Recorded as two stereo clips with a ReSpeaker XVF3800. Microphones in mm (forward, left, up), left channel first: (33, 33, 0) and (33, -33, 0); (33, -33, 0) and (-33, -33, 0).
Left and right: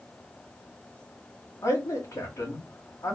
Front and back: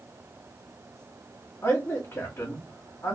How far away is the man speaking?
About 2.0 m.